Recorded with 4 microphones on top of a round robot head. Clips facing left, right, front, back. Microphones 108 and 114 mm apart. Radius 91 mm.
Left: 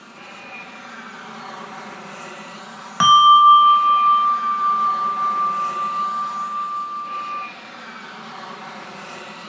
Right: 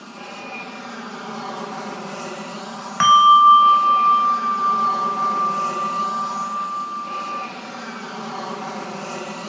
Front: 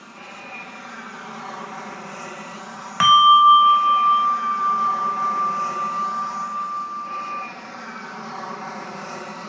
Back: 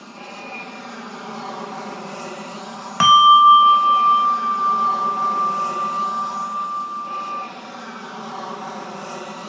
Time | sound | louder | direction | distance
0.0 | an aircraft | right 5 dB, back 4 dB | 135° right | ?
3.0 | a bell | even, back 2 dB | 160° left | ?